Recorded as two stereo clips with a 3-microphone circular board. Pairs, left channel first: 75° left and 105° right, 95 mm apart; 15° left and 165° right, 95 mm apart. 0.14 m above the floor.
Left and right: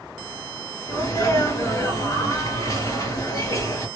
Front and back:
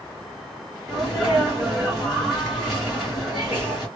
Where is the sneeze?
105° left, 2.0 m.